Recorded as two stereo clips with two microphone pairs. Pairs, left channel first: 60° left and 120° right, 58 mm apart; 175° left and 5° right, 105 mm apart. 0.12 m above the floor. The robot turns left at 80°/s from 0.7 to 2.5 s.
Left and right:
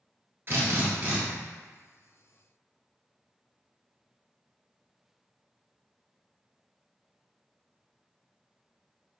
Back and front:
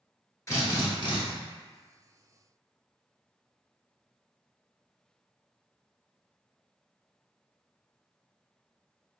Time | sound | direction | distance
0.5 | a drill | 140° right | 1.3 m